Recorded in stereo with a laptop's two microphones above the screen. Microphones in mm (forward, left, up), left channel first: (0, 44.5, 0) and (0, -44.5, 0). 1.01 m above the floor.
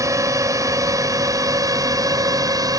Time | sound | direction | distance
0.0 | a drone | 35° right (ahead or behind) | ?